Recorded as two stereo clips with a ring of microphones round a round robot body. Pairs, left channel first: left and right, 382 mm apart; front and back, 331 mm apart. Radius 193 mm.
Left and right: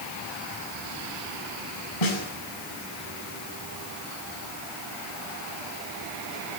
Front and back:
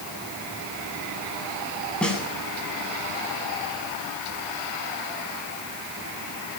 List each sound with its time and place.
2.0 s a snare drum: 85° left, 8.5 m